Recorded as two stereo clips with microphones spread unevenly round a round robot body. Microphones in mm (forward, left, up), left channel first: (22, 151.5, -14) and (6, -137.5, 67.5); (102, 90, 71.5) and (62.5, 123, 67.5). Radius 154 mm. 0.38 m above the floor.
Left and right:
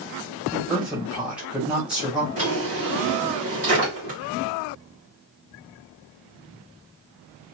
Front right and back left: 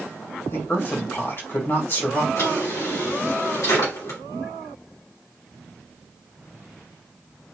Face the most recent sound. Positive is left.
turn(degrees=-30)